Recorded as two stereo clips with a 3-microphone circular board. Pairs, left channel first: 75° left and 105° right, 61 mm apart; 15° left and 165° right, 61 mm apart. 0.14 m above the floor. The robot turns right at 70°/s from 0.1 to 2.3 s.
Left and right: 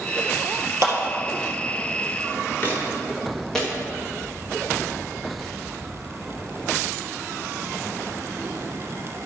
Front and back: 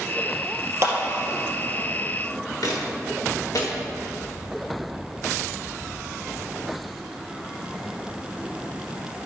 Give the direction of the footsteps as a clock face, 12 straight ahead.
11 o'clock.